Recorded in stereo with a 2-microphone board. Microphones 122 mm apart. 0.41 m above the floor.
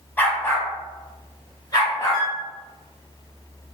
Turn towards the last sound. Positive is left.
turn(degrees=5)  # may be behind; listen again after turning